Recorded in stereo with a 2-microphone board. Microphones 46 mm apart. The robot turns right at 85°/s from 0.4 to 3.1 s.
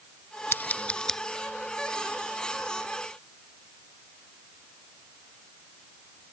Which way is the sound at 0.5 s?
55° left (ahead or behind).